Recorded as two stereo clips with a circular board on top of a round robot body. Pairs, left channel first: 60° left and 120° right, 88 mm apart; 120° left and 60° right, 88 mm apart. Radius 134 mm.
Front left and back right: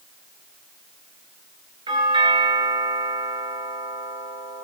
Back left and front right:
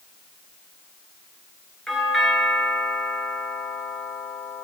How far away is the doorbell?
About 9 m.